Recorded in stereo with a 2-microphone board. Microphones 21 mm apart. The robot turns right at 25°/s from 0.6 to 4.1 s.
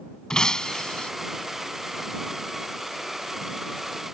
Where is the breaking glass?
30° left (ahead or behind); by 1.1 s 45° left (ahead or behind).